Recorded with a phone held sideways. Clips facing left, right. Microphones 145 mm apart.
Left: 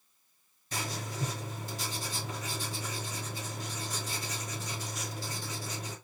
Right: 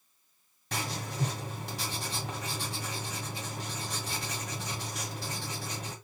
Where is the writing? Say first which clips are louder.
Right 1 dB; 80° right, 2 m.